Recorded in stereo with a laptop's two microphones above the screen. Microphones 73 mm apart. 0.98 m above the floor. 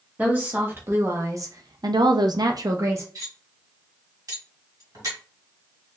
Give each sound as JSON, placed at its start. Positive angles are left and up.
{"t": 0.2, "sound": "a woman speaking", "side_deg": -25, "distance_m": 1.5}
{"t": 3.1, "sound": "cutlery clinking", "side_deg": -50, "distance_m": 1.6}